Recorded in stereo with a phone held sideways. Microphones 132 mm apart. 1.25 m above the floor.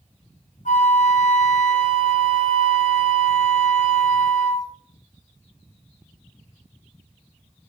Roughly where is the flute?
Left.